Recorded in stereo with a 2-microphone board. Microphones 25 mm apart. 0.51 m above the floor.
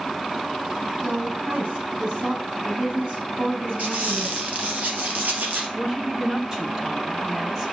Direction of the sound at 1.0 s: 75° right (ahead or behind).